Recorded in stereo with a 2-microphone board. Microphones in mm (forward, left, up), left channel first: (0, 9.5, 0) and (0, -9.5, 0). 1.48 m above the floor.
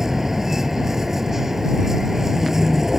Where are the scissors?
I don't hear scissors.